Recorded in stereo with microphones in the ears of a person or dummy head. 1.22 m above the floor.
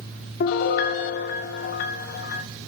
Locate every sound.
0.4 s a piano: 55° left (ahead or behind), 1.3 m